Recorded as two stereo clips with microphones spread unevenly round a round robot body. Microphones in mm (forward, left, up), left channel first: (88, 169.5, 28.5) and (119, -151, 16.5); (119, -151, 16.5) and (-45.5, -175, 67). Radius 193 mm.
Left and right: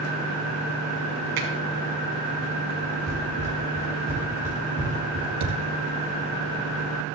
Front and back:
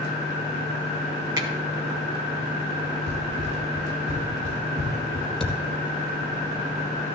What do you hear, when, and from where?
1.4 s a finger snap: 100° right, 4.5 m
3.1 s running footsteps: 165° left, 5 m; by 5.3 s 140° left, 4.5 m
5.4 s a thud: 80° right, 4 m